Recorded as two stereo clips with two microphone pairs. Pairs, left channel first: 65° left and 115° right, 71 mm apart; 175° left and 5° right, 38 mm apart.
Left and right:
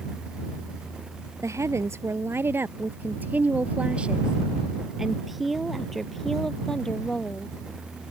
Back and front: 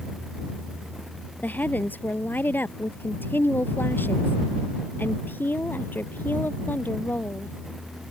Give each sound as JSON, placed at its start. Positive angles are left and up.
{"t": 1.4, "sound": "a woman speaking", "azimuth_deg": -155}